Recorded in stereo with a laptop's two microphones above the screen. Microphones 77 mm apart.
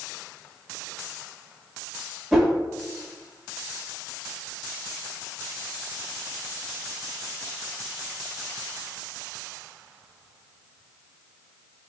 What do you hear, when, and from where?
2.3 s a whoosh: 5° right (ahead or behind), 1.3 m